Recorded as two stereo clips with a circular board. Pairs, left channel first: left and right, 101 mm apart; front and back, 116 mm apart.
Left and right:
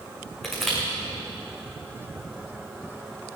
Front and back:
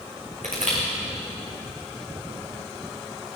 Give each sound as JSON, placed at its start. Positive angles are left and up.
{"t": 0.4, "sound": "crushing", "azimuth_deg": 180, "distance_m": 5.0}